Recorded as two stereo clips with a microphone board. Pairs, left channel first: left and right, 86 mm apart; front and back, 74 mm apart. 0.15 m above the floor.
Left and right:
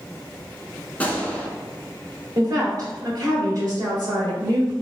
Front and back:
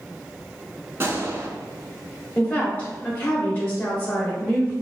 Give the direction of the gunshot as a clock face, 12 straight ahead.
7 o'clock.